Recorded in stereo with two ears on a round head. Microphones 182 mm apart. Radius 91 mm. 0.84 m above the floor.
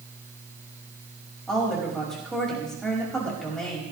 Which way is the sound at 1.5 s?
5° left (ahead or behind).